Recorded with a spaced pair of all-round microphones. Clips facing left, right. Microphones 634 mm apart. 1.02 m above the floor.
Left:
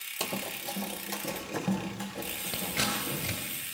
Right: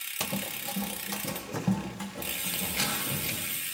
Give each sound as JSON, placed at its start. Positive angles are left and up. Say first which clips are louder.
{"t": 0.2, "sound": "running footsteps", "louder": "right 1 dB", "side_deg": -35, "distance_m": 1.2}
{"t": 2.5, "sound": "scissors", "louder": "left 2 dB", "side_deg": 75, "distance_m": 3.0}